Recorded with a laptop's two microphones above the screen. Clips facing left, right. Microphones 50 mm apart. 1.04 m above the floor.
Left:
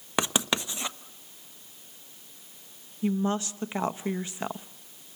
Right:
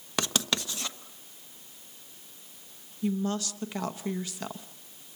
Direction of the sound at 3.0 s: 25° left (ahead or behind).